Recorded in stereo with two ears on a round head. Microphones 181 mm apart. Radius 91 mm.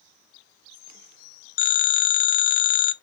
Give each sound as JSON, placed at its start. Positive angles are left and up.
{"t": 1.6, "sound": "a phone ringing", "side_deg": 45, "distance_m": 0.8}